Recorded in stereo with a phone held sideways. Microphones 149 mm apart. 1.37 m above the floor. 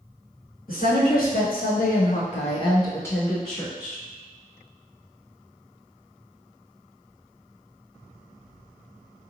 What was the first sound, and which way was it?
A woman speaking, 75° left (ahead or behind).